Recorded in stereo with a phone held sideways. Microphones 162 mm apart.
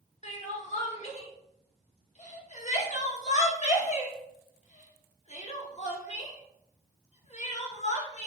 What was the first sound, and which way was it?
Crying, 45° left (ahead or behind).